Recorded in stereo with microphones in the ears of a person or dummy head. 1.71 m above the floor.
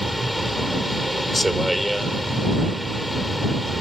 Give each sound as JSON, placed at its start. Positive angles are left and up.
{"t": 0.0, "sound": "a vehicle", "side_deg": 0}